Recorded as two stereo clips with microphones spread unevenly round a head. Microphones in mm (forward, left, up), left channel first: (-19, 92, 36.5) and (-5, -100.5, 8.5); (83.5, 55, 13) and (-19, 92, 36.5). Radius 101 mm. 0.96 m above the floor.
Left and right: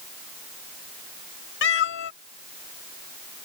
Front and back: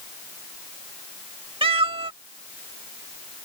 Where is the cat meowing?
125° left.